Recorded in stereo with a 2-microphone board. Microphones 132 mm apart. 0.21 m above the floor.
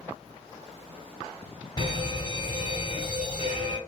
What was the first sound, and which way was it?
A fire alarm, 30° left (ahead or behind).